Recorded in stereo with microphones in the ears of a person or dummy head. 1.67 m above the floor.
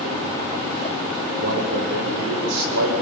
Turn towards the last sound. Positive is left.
turn(degrees=-80)